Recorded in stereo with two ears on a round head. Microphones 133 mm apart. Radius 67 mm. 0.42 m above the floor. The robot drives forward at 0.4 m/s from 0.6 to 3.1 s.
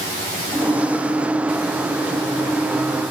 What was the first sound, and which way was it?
Only background noise.